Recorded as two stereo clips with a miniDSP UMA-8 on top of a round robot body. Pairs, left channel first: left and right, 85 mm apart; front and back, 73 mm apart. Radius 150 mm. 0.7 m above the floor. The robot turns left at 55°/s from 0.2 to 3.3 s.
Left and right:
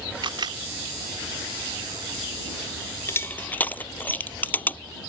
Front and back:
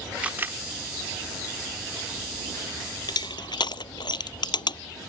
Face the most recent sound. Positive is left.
turn(degrees=20)